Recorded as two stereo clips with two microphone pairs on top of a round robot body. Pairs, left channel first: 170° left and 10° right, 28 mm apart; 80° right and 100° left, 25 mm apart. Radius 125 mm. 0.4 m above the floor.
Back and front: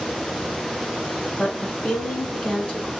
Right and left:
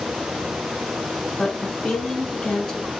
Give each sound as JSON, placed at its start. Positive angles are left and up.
{"t": 1.4, "sound": "a woman speaking", "azimuth_deg": -125, "distance_m": 5.0}